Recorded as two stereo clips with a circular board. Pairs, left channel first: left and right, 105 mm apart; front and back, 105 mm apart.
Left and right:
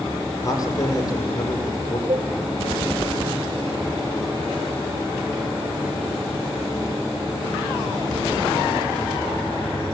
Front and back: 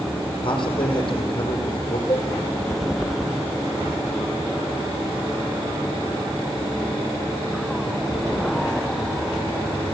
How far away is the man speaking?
About 6.5 m.